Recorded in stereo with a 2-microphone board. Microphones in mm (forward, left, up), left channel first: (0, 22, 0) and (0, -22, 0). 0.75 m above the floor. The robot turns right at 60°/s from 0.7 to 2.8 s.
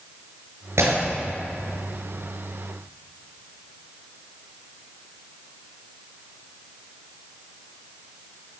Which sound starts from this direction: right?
Breaking glass, at 0.8 s.